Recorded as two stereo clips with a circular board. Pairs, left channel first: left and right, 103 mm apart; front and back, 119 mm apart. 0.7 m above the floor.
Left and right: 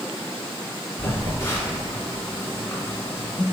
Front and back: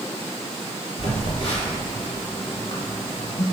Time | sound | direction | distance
1.0 | a phone buzzing | 30° left | 1.4 m